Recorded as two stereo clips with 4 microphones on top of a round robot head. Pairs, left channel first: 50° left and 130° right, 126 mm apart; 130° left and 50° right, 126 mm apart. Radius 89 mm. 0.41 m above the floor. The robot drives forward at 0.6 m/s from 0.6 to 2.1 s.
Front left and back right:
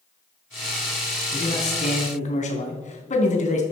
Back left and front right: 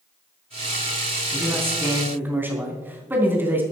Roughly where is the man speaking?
Ahead.